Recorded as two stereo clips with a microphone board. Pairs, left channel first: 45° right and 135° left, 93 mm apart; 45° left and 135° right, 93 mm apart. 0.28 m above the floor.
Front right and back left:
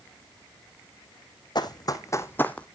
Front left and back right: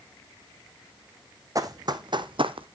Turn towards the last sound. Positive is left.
turn(degrees=-125)